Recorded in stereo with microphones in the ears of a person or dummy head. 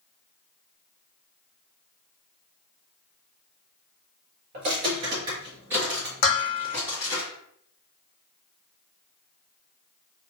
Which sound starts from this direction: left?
Dishes clattering, at 6.2 s.